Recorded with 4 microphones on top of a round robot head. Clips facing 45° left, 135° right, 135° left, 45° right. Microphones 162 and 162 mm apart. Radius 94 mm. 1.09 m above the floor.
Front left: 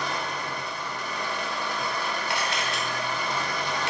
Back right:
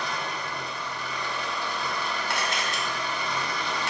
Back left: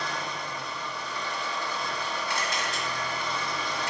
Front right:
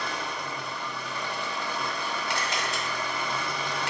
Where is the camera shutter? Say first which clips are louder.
Front left 1 dB, front right 1 dB; 80° right, 0.8 m.